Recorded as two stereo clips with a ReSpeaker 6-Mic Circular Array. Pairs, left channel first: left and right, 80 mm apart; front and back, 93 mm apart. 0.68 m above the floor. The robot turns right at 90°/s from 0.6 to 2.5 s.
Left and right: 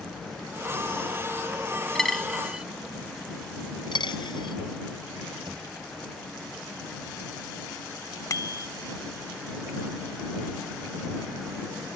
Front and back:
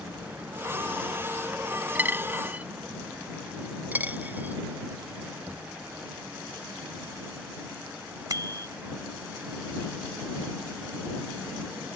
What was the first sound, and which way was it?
A dropped coin, 160° left.